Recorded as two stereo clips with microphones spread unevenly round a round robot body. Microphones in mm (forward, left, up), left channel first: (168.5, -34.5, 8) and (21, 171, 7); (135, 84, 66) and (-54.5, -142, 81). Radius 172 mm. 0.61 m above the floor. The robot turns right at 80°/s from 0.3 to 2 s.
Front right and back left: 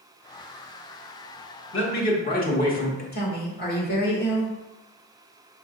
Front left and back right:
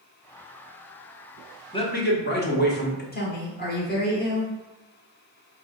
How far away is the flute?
I don't hear a flute.